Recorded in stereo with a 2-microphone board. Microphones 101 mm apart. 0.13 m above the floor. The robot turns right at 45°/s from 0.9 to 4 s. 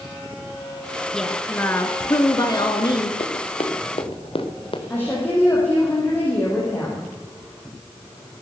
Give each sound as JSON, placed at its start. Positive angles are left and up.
{"t": 1.1, "sound": "a woman speaking", "azimuth_deg": 5, "distance_m": 1.7}
{"t": 3.2, "sound": "running footsteps", "side_deg": 70, "distance_m": 3.0}
{"t": 4.9, "sound": "a woman speaking", "side_deg": 20, "distance_m": 5.5}